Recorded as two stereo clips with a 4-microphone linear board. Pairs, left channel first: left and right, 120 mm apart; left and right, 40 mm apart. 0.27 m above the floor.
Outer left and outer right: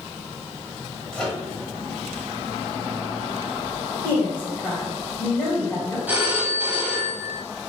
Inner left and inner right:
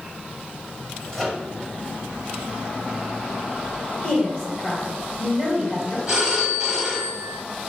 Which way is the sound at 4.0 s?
20° left (ahead or behind).